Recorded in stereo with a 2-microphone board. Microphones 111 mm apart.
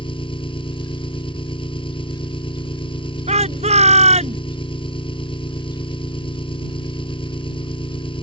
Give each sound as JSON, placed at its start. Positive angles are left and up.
{"t": 0.0, "sound": "an engine running", "side_deg": 50}
{"t": 3.3, "sound": "a shout", "side_deg": -80}